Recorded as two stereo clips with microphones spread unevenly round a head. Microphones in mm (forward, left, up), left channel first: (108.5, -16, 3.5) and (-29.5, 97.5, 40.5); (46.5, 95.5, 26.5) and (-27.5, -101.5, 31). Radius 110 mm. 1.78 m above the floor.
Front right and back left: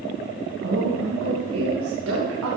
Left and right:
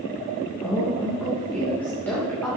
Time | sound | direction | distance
0.6 | a woman speaking | 150° left | 2.5 m